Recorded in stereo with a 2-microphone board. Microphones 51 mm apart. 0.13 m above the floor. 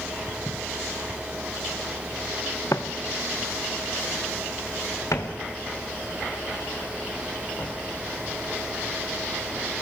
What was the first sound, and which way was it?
Footsteps, 80° left.